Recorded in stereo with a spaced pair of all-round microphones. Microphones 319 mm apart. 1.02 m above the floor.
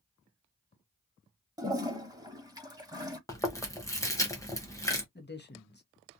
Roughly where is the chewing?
Centre.